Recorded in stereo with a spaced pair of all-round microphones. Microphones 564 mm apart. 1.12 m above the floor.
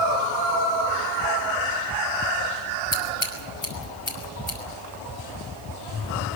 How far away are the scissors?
About 6 m.